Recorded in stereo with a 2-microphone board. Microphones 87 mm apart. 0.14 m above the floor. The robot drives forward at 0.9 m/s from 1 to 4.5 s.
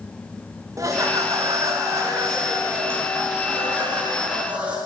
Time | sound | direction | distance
0.8 | laughter | 40° right (ahead or behind) | 1.4 m